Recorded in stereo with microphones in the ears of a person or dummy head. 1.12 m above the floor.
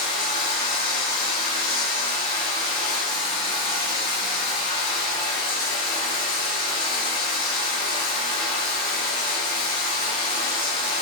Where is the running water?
25° left (ahead or behind), 1.2 m.